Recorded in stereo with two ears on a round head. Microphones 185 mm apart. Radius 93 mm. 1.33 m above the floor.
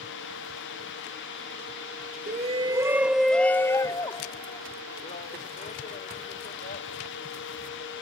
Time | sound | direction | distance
2.3 | a shout | 40° right (ahead or behind) | ?